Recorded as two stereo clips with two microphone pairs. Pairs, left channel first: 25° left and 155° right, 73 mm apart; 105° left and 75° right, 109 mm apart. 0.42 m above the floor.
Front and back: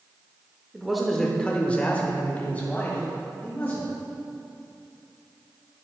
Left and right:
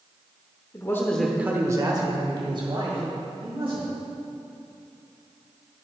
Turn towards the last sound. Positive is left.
turn(degrees=-45)